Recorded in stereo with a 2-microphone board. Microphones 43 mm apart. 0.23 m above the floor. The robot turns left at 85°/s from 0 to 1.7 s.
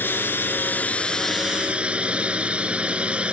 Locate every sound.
0.0 s a drone: 115° left; by 3.3 s 30° right